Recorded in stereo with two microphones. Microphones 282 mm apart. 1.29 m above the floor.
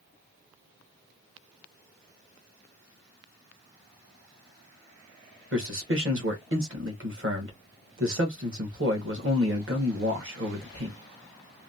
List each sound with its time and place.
5.5 s a man speaking: 45° right (ahead or behind), 1.2 m